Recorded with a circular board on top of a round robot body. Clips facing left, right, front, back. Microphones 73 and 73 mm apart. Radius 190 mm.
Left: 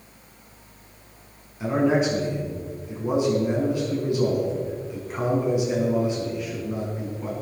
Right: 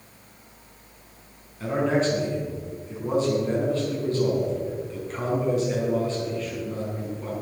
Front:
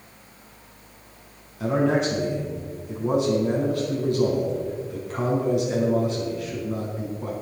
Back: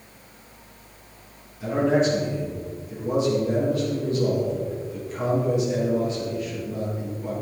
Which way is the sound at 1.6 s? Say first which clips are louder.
Left 2 dB, back 1 dB; 15° left.